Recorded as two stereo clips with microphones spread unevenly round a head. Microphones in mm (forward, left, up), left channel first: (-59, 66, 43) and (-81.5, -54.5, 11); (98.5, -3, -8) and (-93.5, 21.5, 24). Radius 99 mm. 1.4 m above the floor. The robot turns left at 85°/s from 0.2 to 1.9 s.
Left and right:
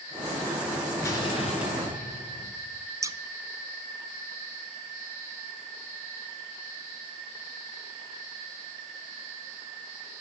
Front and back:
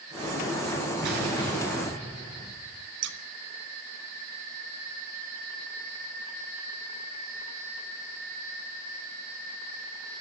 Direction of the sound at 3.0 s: 170° right.